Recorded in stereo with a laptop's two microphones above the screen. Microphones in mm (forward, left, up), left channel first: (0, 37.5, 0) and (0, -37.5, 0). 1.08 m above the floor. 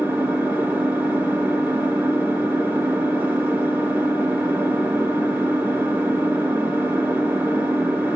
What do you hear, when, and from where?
0.0 s an engine running: 25° right (ahead or behind), 4.5 m